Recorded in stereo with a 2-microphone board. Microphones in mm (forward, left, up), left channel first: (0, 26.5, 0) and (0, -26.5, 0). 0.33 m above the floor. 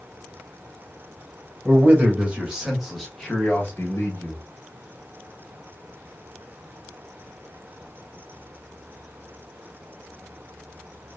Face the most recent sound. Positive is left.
turn(degrees=45)  # may be behind; listen again after turning